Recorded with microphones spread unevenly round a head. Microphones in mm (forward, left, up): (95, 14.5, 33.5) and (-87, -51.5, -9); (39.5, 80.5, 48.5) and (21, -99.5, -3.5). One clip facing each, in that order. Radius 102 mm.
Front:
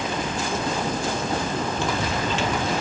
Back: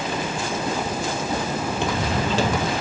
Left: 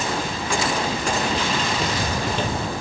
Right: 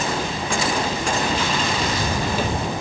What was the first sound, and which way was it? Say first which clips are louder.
Footsteps: back 1 dB, right 1 dB; 115° left.